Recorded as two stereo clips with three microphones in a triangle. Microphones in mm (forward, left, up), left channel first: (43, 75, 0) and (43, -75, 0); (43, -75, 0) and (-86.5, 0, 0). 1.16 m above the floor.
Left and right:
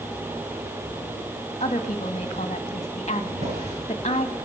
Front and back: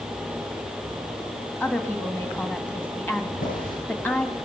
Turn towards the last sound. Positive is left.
turn(degrees=-45)